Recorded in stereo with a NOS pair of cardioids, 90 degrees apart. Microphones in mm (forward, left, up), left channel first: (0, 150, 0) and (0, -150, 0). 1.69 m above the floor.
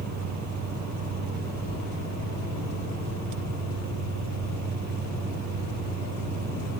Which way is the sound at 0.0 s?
65° right.